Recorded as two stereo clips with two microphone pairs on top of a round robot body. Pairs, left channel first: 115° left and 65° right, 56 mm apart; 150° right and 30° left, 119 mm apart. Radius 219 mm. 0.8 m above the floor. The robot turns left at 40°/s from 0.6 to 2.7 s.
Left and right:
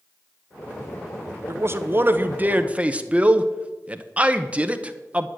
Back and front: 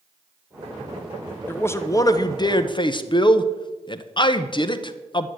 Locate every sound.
1.5 s a man speaking: 80° right, 1.0 m; by 5.3 s 130° right, 1.0 m